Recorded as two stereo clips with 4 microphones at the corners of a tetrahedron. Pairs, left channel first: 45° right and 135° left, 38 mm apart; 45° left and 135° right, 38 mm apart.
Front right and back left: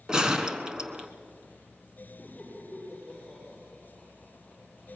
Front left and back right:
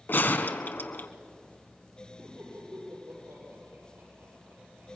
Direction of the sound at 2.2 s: 125° right.